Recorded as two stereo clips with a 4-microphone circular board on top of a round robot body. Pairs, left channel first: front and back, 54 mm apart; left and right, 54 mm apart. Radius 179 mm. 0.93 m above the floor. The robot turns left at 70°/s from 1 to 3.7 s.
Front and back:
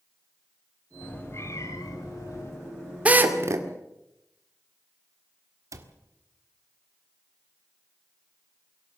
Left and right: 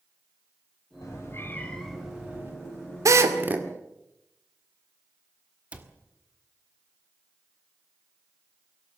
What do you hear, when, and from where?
1.0 s a cat meowing: 65° left, 0.9 m; by 2.5 s 40° right, 0.9 m
3.0 s a drill: 115° right, 2 m; by 3.7 s 155° right, 2 m
5.7 s a cupboard door: 155° right, 1.8 m